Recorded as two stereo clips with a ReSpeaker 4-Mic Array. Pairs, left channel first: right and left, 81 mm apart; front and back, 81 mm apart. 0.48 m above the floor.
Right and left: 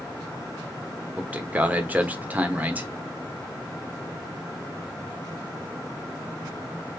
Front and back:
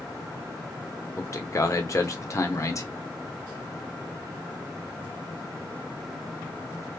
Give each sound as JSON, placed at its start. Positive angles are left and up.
{"t": 1.2, "sound": "a man speaking", "azimuth_deg": 30, "distance_m": 0.9}